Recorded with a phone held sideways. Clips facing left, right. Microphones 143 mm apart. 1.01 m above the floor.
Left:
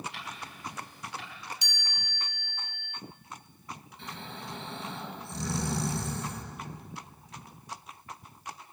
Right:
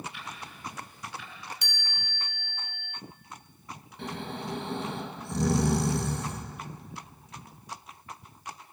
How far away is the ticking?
About 5 m.